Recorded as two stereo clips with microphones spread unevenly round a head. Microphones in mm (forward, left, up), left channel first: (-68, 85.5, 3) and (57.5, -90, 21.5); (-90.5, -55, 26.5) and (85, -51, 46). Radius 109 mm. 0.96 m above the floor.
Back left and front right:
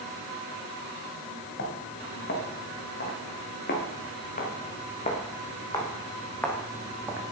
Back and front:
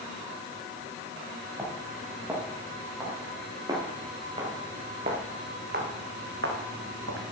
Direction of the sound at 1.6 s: 85° left.